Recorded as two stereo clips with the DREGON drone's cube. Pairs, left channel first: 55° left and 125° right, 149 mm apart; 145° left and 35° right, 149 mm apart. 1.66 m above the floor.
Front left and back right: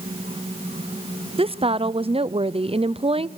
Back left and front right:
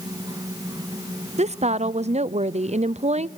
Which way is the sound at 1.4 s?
75° right.